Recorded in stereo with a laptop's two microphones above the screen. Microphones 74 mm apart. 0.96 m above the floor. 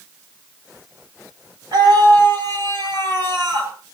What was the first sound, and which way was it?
A scream, 75° right (ahead or behind).